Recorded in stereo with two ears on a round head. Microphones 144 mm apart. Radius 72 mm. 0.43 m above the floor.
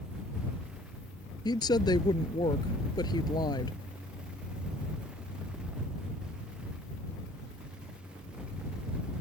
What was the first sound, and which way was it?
A woman speaking, 25° left (ahead or behind).